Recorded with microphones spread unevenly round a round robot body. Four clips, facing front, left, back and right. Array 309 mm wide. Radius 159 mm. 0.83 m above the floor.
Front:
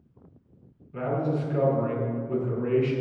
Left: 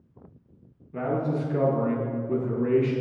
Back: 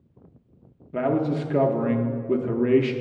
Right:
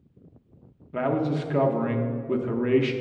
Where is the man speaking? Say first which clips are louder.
Right 2 dB, back 4 dB; 155° right, 0.7 m.